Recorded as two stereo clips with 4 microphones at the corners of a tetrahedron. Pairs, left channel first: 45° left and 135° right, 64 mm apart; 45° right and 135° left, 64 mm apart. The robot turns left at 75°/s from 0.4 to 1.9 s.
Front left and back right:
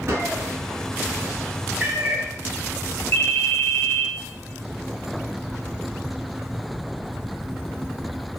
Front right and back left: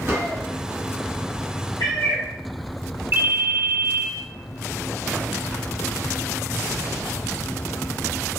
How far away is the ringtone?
About 0.5 m.